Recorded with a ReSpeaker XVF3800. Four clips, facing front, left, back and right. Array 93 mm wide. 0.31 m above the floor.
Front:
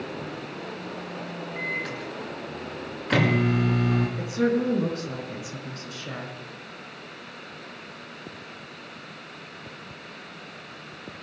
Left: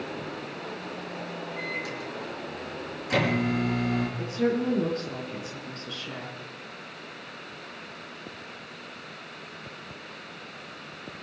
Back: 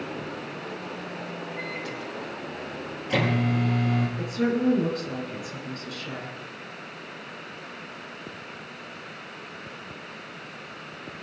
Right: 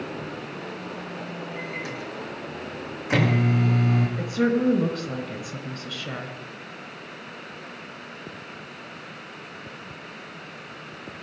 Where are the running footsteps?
I don't hear running footsteps.